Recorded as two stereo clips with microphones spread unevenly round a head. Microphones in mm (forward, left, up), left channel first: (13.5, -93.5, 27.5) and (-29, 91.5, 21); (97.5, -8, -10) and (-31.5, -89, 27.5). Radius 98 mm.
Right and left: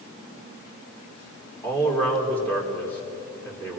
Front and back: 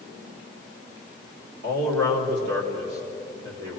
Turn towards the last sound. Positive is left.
turn(degrees=-160)